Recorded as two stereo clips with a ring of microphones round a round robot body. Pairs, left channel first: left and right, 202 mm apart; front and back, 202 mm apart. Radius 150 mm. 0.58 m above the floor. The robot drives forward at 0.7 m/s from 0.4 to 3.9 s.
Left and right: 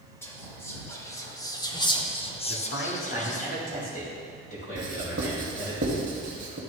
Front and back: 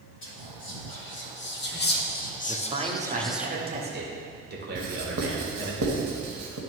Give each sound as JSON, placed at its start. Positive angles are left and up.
{"t": 0.2, "sound": "whispering", "azimuth_deg": 10, "distance_m": 2.0}
{"t": 2.5, "sound": "a man speaking", "azimuth_deg": 110, "distance_m": 1.1}
{"t": 4.8, "sound": "writing", "azimuth_deg": -145, "distance_m": 0.8}